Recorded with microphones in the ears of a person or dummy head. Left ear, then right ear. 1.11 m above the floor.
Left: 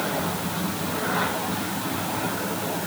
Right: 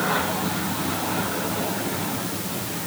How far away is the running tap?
No running tap in this recording.